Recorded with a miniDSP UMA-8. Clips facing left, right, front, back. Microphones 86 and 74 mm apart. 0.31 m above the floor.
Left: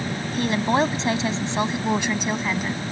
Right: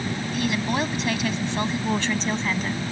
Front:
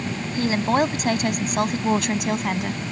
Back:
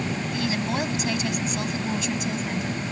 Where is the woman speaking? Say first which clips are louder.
Left 5 dB, front 8 dB; 45° left; by 2.9 s 5° left.